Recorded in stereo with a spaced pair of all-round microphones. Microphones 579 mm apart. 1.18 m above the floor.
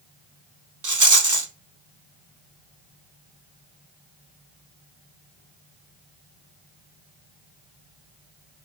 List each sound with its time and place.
0.8 s a rattle: 30° right (ahead or behind), 1.1 m